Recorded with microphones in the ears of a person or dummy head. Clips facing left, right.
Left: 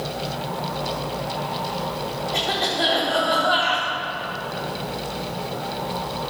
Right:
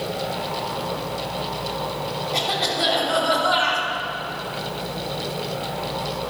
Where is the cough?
10° left (ahead or behind), 4 m.